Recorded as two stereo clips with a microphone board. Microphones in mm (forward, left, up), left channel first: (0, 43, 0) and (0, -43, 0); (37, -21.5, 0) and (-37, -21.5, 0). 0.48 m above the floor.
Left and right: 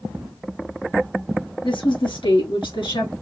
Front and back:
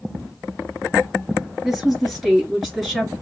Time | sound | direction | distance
1.6 | a woman speaking | 90° left | 3.5 m